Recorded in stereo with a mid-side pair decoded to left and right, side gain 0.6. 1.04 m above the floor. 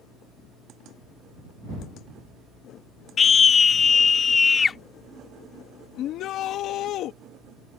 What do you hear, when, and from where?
3.2 s a scream: 30° left; by 4.8 s 25° left
6.0 s a shout: 60° left